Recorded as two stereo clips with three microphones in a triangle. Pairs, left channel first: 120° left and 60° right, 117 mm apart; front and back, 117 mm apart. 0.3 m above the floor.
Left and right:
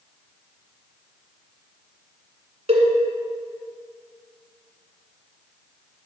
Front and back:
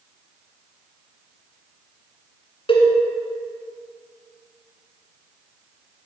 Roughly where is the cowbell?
Ahead right.